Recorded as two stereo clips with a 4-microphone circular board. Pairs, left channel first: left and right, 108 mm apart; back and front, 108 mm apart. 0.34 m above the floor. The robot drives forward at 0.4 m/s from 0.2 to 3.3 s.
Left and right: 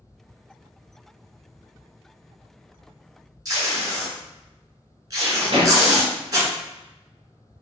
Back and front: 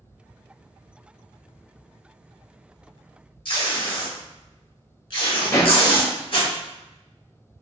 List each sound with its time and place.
3.5 s tape being pulled: 145° right, 0.9 m
5.5 s a pop: 120° right, 0.7 m